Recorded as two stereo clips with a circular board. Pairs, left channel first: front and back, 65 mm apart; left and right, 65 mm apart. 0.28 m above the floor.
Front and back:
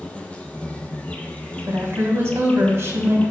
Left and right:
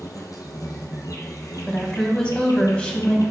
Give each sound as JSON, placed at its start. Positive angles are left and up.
{"t": 0.0, "sound": "an insect", "azimuth_deg": 70, "distance_m": 1.0}
{"t": 1.7, "sound": "a woman speaking", "azimuth_deg": 160, "distance_m": 1.5}